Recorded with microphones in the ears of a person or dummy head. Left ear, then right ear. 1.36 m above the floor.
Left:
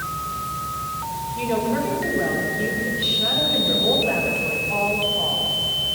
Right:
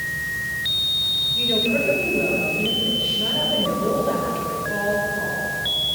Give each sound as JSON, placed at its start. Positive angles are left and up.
{"t": 1.4, "sound": "a woman speaking", "side_deg": 5, "distance_m": 5.0}